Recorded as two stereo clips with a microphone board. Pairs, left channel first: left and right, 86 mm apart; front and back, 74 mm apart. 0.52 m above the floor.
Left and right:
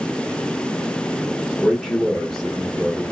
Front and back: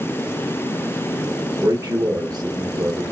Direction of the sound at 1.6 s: 175° left.